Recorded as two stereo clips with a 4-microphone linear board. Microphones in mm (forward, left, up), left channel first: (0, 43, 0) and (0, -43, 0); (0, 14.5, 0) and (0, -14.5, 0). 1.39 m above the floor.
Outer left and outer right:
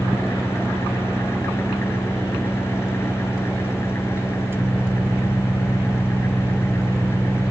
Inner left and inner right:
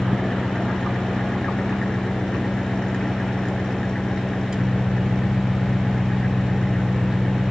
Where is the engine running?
30° left (ahead or behind).